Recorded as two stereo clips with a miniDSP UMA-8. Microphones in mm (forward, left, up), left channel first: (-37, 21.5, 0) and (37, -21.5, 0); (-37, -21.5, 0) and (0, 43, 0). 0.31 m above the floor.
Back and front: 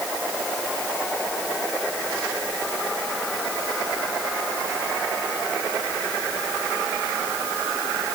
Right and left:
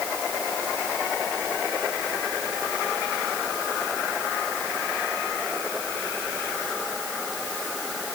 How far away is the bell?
I don't hear a bell.